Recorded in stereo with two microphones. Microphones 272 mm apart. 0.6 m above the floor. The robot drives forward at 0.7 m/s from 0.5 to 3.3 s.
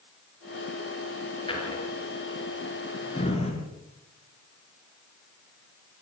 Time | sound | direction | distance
1.5 | a drawer | 20° left (ahead or behind) | 6.5 m